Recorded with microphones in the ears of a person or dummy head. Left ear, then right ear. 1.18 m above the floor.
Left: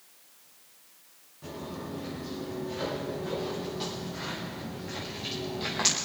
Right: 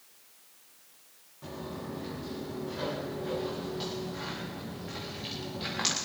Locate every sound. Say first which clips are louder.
1.4 s footsteps: left 1 dB; 20° right (ahead or behind), 7 m; by 6.0 s centre (ahead or behind), 6.5 m